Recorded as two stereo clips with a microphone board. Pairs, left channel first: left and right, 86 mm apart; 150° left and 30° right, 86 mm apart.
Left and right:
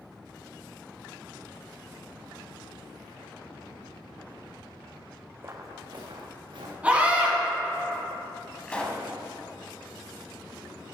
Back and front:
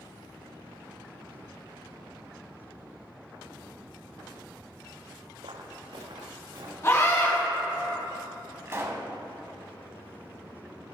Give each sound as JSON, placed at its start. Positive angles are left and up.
{"t": 5.4, "sound": "footsteps", "azimuth_deg": -25, "distance_m": 0.9}
{"t": 6.8, "sound": "a scream", "azimuth_deg": -160, "distance_m": 2.0}
{"t": 8.7, "sound": "a pop", "azimuth_deg": 20, "distance_m": 0.8}